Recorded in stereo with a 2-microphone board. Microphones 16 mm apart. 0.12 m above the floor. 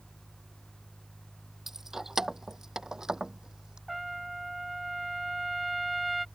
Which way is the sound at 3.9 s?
5° right (ahead or behind).